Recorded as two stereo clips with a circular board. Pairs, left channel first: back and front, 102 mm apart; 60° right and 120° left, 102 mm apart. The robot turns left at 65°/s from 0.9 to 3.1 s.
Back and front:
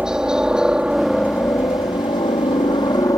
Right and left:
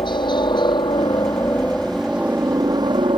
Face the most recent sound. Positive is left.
turn(degrees=135)